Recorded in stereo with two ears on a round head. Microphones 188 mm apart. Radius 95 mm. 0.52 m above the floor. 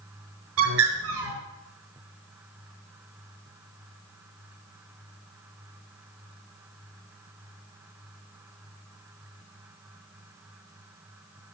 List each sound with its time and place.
0.6 s a bird: 70° right (ahead or behind), 5 m